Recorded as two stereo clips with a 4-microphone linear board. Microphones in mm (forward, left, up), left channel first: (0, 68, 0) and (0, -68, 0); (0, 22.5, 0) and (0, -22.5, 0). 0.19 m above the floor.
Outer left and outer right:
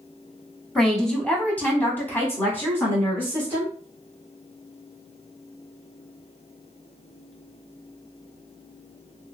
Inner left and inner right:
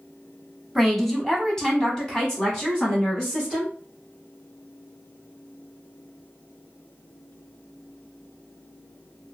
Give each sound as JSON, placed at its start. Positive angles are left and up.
{"t": 0.8, "sound": "a woman speaking", "side_deg": 0, "distance_m": 1.1}